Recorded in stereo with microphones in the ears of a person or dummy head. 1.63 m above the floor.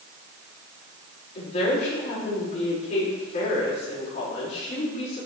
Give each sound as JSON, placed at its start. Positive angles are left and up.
{"t": 1.4, "sound": "a woman speaking", "side_deg": 50, "distance_m": 5.5}